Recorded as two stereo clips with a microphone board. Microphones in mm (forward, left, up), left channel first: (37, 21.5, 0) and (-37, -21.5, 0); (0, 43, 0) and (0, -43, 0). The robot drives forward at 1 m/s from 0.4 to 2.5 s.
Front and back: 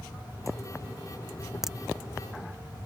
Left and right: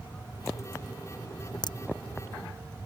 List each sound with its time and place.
1.6 s a crack: 125° left